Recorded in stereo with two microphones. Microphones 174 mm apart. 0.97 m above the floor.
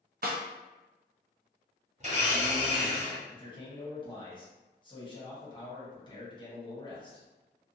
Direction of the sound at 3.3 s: 25° left (ahead or behind).